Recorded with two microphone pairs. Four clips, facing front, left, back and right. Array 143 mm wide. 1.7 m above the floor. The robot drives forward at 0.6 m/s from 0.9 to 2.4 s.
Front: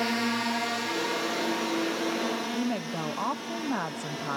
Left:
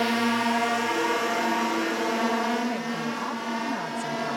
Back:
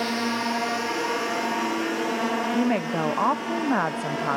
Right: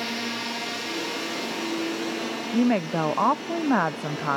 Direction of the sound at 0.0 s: 105° left.